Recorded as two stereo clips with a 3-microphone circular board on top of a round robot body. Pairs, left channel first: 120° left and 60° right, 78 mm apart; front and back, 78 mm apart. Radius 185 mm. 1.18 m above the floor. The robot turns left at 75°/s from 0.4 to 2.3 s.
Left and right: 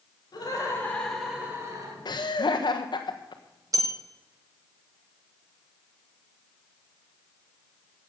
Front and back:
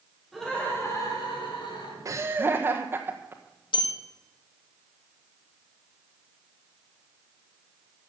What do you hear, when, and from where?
0.3 s laughter: 90° left, 5 m; by 1.9 s 25° right, 5 m
2.0 s laughter: 140° left, 1.2 m; by 3.8 s 120° left, 1.2 m
3.7 s a bell: 10° right, 1.0 m